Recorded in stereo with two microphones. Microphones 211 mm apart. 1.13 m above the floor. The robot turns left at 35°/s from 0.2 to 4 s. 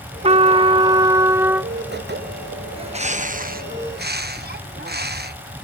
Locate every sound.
0.2 s a trumpet: 115° right; by 1.7 s 170° right
2.8 s a bird: 35° right; by 5.6 s 80° right